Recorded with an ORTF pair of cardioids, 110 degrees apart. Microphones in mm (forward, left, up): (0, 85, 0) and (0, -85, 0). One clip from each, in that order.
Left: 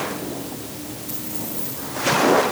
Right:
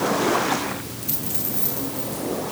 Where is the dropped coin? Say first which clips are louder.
Right 1 dB; 50° right, 10 m.